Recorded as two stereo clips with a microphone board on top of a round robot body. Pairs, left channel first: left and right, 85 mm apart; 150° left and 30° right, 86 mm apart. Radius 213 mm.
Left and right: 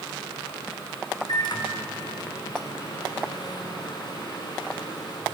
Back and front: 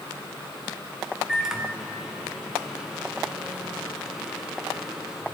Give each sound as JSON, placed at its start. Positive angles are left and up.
{"t": 1.3, "sound": "a microwave", "azimuth_deg": 55, "distance_m": 1.2}